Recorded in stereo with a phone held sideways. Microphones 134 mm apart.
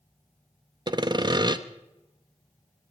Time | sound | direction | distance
0.9 | sawing | 35° right (ahead or behind) | 0.7 m